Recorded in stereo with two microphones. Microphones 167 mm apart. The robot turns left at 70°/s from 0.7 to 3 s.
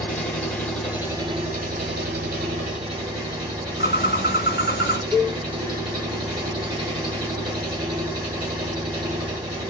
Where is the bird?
75° left (ahead or behind), 0.5 m.